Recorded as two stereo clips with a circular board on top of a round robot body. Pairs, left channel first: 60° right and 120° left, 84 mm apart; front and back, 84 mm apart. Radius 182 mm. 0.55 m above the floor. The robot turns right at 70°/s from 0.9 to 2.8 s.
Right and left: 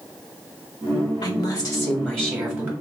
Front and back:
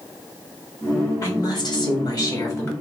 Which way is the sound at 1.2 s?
50° right.